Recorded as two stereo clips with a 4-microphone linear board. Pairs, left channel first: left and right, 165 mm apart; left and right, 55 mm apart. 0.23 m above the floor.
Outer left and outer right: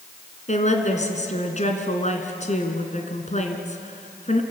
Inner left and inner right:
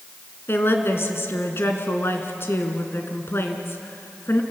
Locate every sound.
0.5 s a woman speaking: 45° left (ahead or behind), 2.5 m